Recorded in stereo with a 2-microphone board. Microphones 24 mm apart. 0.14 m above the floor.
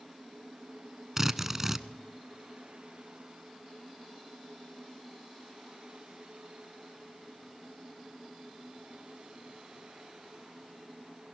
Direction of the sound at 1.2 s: 15° right (ahead or behind).